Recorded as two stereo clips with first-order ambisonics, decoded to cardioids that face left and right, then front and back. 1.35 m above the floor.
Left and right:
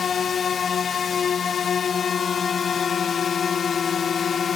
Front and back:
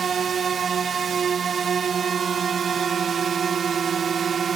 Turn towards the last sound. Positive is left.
turn(degrees=135)